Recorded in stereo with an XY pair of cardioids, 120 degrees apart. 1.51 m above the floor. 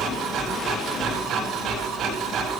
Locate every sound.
0.0 s a machine running: 65° right, 9.5 m